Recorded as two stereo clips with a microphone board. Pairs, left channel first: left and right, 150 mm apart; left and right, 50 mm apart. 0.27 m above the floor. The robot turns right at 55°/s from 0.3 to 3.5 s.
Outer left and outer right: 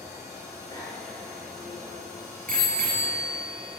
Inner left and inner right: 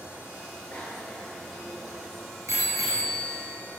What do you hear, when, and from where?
0.7 s a bicycle bell: 25° left (ahead or behind), 3 m; by 3.8 s 50° right (ahead or behind), 3 m